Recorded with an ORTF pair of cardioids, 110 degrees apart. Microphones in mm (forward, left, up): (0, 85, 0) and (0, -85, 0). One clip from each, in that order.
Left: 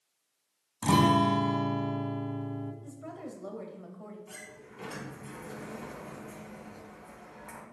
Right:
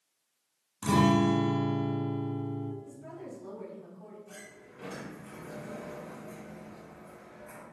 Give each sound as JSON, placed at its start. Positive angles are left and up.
{"t": 0.8, "sound": "a guitar", "azimuth_deg": 30, "distance_m": 1.1}
{"t": 2.8, "sound": "a woman speaking", "azimuth_deg": 60, "distance_m": 2.0}
{"t": 4.3, "sound": "a sliding door", "azimuth_deg": 50, "distance_m": 2.0}